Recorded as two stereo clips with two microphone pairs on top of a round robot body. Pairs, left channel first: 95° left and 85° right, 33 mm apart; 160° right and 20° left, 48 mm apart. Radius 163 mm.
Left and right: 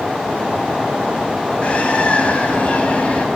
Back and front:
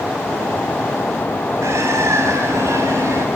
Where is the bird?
40° left, 3 m.